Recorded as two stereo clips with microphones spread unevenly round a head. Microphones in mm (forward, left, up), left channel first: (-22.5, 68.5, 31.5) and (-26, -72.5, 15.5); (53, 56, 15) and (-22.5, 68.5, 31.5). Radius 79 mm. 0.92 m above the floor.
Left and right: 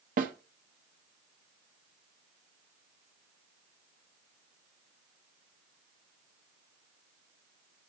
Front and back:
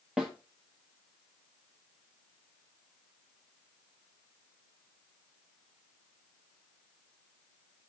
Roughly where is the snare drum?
Right.